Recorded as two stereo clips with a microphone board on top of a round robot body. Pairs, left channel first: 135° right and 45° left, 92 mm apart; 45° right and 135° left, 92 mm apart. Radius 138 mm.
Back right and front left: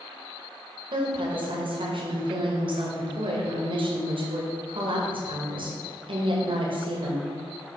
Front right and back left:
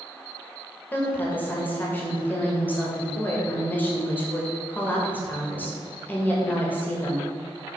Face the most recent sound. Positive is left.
turn(degrees=25)